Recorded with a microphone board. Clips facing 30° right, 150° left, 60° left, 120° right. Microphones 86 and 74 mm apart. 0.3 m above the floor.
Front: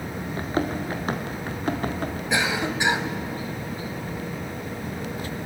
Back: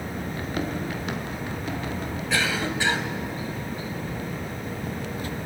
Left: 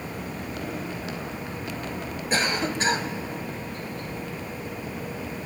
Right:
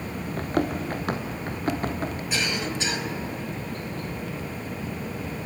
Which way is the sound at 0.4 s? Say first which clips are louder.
Front 5 dB, right 10 dB; 85° right.